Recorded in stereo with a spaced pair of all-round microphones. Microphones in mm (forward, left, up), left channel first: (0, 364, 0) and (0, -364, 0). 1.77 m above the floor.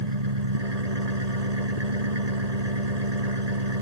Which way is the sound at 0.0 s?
65° right (ahead or behind).